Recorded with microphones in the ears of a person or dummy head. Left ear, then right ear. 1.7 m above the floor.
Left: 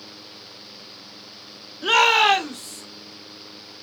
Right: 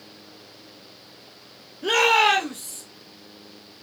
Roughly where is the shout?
Left.